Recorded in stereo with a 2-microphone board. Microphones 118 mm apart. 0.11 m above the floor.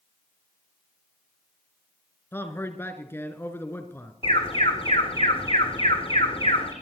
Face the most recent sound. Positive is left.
turn(degrees=50)  # may be behind; listen again after turning